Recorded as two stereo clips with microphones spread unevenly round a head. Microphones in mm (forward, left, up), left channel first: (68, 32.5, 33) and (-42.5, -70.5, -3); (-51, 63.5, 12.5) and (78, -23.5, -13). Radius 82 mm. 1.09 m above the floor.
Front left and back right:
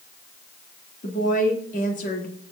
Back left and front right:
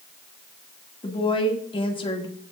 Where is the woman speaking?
90° left, 2.5 m.